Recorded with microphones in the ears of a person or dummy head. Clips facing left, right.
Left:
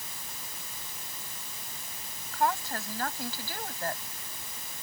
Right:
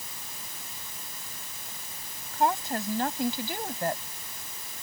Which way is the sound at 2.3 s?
20° right (ahead or behind).